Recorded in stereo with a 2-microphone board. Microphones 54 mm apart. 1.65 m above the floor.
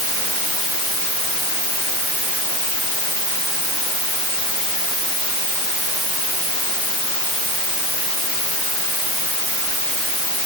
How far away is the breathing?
No breathing in this recording.